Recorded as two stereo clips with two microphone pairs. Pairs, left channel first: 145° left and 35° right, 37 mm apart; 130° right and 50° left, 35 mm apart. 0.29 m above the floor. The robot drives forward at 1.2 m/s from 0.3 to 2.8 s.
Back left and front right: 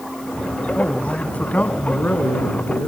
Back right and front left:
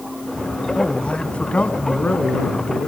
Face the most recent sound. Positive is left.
turn(degrees=180)